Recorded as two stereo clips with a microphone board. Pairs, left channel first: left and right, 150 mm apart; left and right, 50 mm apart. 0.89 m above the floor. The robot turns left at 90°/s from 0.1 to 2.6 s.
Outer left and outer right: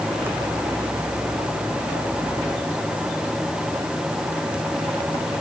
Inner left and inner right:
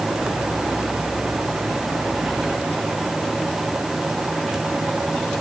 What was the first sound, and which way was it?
Only background noise.